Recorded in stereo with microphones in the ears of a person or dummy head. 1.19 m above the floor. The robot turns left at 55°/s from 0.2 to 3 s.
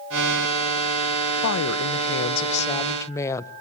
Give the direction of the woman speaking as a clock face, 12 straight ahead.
9 o'clock.